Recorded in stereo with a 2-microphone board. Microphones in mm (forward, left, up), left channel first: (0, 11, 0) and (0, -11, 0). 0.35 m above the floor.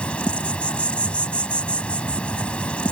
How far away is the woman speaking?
No woman speaking in this recording.